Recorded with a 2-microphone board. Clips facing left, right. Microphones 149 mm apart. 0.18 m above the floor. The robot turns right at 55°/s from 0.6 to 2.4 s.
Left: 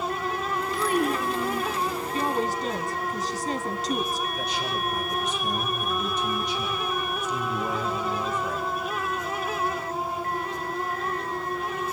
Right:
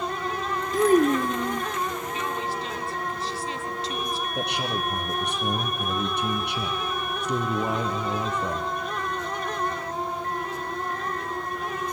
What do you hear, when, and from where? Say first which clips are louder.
0.7 s a child speaking: right 7 dB; 60° right, 1.3 m; by 1.7 s 10° right, 1.3 m
2.1 s a woman speaking: left 4 dB; 45° left (ahead or behind), 2 m
4.3 s a man speaking: right 1 dB; 65° right (ahead or behind), 4 m